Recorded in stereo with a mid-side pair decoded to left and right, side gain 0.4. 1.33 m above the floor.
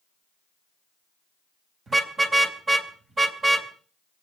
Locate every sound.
1.9 s a car horn: 45° right, 3.5 m